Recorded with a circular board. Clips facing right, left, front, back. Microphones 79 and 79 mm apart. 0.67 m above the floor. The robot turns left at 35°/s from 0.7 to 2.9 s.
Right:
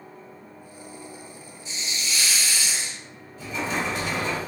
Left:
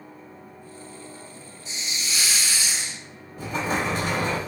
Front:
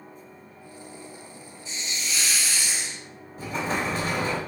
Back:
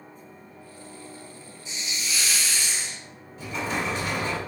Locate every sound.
1.6 s a hiss: 110° left, 2.0 m; by 3.0 s 70° left, 2.0 m
3.4 s an explosion: 50° left, 0.9 m